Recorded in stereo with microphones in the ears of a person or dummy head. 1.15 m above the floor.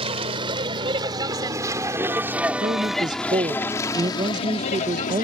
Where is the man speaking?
25° right (ahead or behind).